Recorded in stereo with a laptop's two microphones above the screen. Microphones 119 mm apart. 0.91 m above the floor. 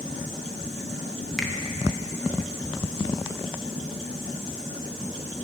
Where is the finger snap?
5° left (ahead or behind), 0.6 m.